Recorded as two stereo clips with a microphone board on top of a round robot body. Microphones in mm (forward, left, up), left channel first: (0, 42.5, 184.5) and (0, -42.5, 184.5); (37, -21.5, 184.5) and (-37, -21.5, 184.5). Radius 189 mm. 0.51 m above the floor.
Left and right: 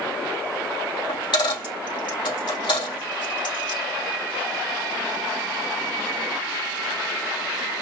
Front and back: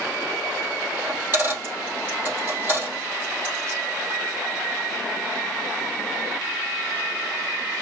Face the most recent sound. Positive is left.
turn(degrees=115)